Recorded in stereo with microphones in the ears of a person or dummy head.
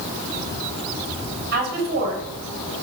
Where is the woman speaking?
55° right (ahead or behind), 6 m.